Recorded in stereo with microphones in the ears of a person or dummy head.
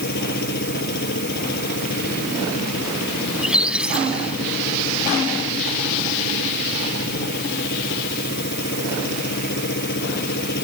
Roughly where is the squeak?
Centre.